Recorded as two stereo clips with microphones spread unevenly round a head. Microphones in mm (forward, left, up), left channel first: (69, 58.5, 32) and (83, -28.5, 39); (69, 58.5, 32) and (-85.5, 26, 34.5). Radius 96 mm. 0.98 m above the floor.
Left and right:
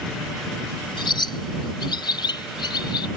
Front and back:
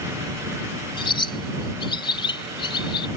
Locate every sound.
1.0 s a bird: 70° left